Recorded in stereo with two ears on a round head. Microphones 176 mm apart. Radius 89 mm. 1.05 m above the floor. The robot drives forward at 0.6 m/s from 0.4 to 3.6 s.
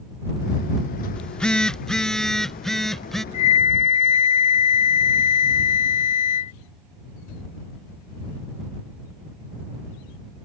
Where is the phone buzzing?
5° left (ahead or behind); by 3.2 s centre (ahead or behind).